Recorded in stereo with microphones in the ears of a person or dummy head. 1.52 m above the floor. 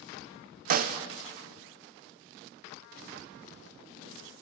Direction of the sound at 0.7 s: 45° right (ahead or behind).